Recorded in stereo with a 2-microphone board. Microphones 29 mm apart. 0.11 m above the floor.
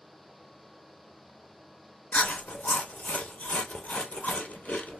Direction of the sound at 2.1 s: 65° left (ahead or behind).